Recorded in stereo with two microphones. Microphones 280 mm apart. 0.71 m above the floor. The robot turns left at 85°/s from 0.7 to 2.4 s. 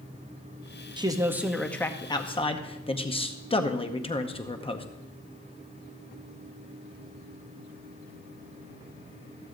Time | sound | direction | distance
1.0 | a man speaking | 15° right (ahead or behind) | 0.8 m